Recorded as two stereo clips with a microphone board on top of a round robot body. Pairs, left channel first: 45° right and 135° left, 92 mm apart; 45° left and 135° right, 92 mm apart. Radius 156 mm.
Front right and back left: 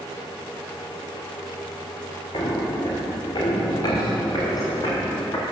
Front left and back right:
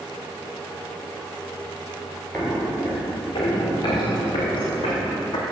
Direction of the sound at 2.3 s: 20° right.